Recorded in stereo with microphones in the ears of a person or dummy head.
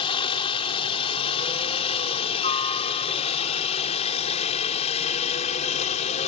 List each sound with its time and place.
0.0 s a helicopter: 30° left (ahead or behind); by 6.3 s 35° left (ahead or behind)